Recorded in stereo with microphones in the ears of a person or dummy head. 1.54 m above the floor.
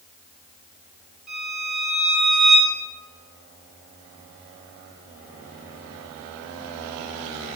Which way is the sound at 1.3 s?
5° left (ahead or behind).